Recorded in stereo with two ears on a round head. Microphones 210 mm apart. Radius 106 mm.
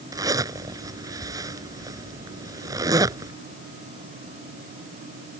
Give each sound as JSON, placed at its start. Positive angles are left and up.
{"t": 0.1, "sound": "a zipper", "side_deg": -15}